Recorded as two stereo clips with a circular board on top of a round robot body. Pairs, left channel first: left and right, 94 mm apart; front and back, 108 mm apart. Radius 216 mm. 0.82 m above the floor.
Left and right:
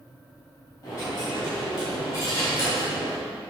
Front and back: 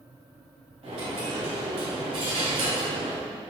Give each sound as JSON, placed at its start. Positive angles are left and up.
{"t": 0.8, "sound": "a dropped coin", "azimuth_deg": 150, "distance_m": 3.0}